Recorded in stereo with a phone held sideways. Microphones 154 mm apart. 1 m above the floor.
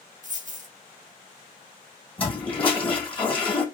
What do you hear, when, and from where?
0.2 s a dropped coin: 55° right (ahead or behind), 0.9 m
2.2 s a toilet flushing: 35° left (ahead or behind), 3 m